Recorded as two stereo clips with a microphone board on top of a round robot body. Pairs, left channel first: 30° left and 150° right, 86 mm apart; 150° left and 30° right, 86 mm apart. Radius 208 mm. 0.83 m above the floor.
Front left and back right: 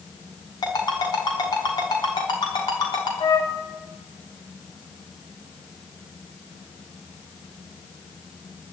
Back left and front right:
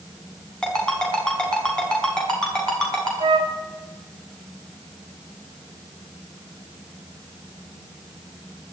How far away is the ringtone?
About 4.5 m.